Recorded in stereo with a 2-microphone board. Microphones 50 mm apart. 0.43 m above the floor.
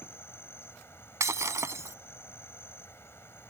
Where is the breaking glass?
80° right.